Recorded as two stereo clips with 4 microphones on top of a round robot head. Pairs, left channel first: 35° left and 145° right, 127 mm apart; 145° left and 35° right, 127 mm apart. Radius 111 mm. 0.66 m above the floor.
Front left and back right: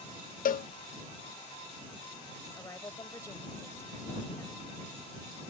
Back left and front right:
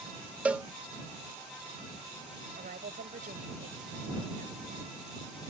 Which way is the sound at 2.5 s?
30° right.